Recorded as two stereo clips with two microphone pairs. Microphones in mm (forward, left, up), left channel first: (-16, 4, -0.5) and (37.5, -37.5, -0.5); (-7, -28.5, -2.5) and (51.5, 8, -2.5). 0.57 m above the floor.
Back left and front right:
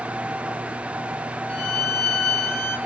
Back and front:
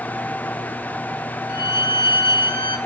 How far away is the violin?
About 3.5 m.